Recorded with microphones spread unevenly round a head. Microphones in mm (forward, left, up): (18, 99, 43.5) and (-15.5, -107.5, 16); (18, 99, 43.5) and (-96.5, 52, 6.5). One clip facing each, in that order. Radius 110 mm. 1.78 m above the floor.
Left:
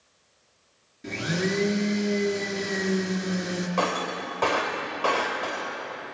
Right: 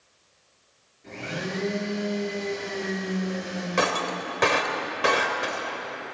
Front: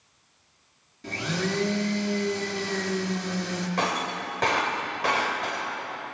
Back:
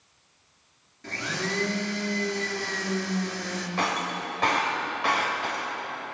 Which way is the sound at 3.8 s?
30° right.